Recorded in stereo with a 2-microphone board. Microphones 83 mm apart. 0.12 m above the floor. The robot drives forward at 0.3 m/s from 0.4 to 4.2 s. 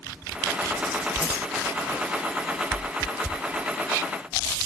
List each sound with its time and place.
1.2 s keys jangling: 10° right (ahead or behind), 1.4 m